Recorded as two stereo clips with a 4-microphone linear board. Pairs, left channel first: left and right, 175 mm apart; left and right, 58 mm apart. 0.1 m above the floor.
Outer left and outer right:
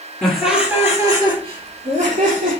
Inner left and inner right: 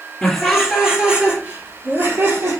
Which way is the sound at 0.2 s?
5° left (ahead or behind).